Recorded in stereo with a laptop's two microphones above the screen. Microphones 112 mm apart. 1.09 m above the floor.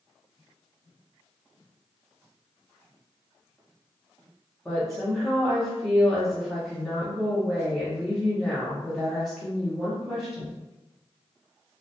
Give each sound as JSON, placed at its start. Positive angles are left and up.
{"t": 4.7, "sound": "a woman speaking", "side_deg": 5, "distance_m": 0.7}